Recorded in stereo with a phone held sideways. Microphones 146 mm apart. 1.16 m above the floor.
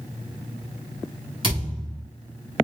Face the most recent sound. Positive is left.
turn(degrees=-35)  # may be behind; listen again after turning